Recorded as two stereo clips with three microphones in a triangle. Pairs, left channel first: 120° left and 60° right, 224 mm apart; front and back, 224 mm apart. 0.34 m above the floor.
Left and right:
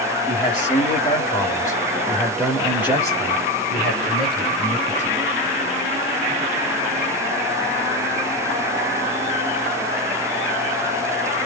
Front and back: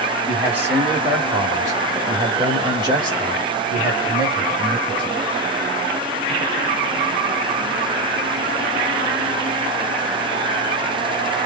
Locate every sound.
0.3 s a man speaking: 100° left, 1.5 m; by 5.2 s 110° right, 2.5 m